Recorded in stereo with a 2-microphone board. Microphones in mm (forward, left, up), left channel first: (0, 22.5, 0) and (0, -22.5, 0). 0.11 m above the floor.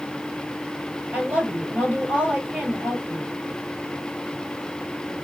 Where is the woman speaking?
35° right (ahead or behind), 2 m.